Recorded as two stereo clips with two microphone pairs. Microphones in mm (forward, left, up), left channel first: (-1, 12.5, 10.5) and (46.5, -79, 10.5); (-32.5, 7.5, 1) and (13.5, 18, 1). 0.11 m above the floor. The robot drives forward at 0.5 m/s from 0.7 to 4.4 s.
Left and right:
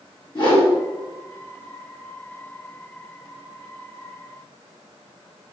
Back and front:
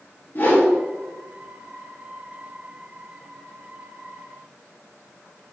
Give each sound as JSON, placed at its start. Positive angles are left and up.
{"t": 0.3, "sound": "a whoosh", "azimuth_deg": 145, "distance_m": 2.5}